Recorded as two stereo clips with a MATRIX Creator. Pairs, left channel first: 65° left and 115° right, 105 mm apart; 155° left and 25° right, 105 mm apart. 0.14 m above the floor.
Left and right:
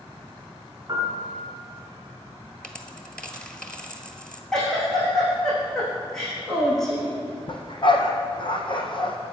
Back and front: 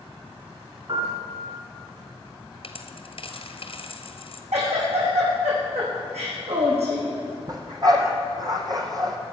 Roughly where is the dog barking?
Ahead left.